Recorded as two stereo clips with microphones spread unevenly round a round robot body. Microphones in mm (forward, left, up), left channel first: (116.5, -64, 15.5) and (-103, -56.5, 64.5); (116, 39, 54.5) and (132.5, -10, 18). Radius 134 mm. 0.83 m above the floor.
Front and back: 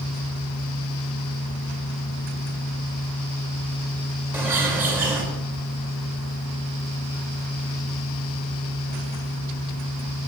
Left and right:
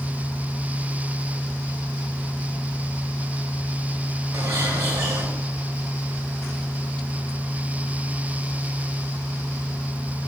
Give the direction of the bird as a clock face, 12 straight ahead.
3 o'clock.